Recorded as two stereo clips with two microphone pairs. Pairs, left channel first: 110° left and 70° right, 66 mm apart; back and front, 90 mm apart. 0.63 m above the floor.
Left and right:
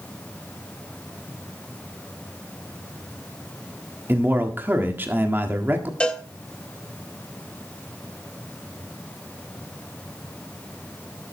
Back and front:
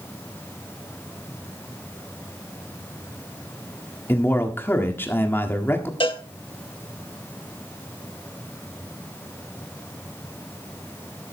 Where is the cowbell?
175° right, 0.9 m.